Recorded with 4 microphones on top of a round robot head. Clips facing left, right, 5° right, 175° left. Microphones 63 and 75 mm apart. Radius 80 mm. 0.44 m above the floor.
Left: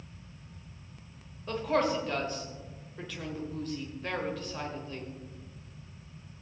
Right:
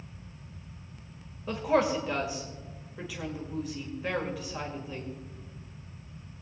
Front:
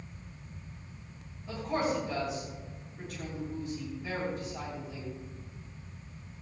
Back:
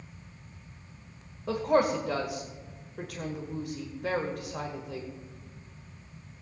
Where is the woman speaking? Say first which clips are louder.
Right 2 dB, back 7 dB; 170° right, 1.7 m.